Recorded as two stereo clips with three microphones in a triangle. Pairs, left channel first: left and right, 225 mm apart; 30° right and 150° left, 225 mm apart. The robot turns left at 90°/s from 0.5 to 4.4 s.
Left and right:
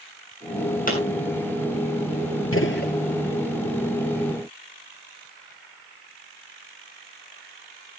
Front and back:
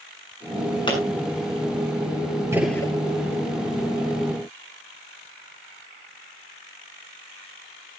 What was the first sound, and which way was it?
A pop, 40° left.